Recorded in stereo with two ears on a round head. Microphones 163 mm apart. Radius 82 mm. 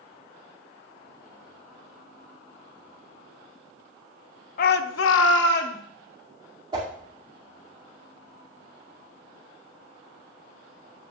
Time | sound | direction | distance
4.6 | a shout | 50° left (ahead or behind) | 0.6 m
6.7 | a whoosh | 25° right (ahead or behind) | 2 m